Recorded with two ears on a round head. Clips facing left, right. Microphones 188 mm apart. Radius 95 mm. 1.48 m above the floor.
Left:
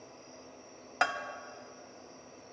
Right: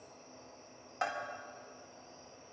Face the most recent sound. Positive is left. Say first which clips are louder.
# left 4 dB
turn(degrees=75)  # may be behind; listen again after turning